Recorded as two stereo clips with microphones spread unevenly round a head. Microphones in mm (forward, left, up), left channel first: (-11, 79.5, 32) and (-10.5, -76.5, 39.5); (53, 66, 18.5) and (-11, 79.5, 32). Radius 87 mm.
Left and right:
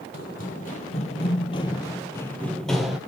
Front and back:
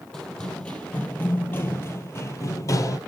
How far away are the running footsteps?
About 2.5 m.